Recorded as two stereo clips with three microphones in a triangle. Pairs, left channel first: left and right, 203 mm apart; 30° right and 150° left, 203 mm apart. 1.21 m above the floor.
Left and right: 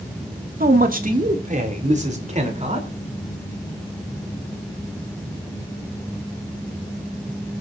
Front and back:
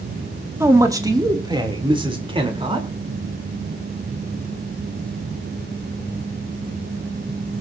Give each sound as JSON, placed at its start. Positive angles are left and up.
{"t": 0.6, "sound": "a man speaking", "azimuth_deg": -135, "distance_m": 2.0}